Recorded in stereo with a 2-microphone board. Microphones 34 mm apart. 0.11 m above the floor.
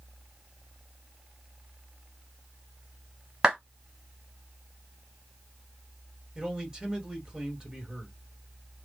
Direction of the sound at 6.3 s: 15° right (ahead or behind).